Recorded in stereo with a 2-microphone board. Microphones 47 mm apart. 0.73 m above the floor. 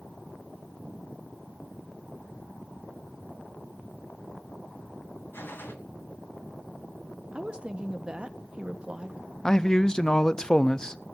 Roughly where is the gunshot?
Left.